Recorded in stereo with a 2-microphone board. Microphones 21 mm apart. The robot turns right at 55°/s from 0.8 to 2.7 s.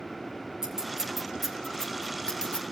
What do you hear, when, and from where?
0.6 s scissors: 30° right (ahead or behind), 6 m; by 2.6 s 65° left (ahead or behind), 6 m